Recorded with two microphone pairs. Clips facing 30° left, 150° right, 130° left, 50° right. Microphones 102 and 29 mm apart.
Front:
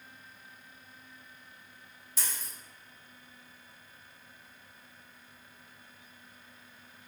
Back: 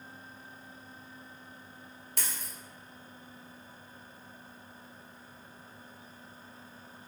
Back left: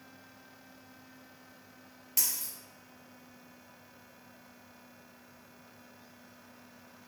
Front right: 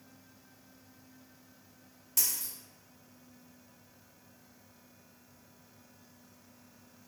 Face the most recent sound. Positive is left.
turn(degrees=-160)